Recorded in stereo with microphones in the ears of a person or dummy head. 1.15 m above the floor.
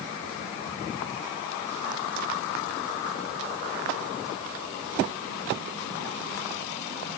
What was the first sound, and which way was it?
Only background noise.